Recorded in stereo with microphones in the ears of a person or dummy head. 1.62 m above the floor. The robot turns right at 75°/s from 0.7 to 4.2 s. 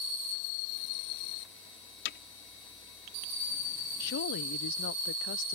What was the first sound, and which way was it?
Hammering, 55° left (ahead or behind).